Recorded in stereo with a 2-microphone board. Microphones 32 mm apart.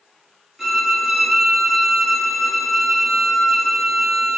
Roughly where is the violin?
Centre.